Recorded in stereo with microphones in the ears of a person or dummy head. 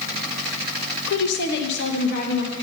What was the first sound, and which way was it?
A woman speaking, 55° left (ahead or behind).